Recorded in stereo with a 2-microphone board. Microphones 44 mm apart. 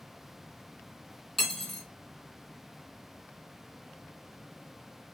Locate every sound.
1.4 s cutlery clinking: 5° left (ahead or behind), 0.8 m